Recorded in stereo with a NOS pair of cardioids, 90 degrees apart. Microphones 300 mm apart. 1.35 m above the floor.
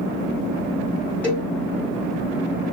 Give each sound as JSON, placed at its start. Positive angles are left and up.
{"t": 1.2, "sound": "a cowbell", "azimuth_deg": 5, "distance_m": 4.0}